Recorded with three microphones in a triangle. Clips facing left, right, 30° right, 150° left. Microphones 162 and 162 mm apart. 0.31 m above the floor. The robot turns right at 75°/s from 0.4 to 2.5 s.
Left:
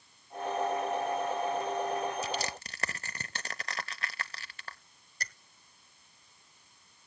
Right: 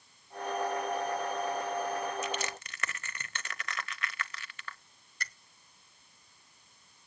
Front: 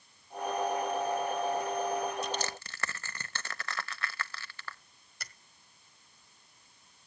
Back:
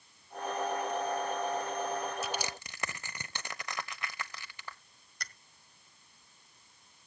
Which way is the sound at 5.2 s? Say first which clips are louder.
Even, back 3 dB; 55° left.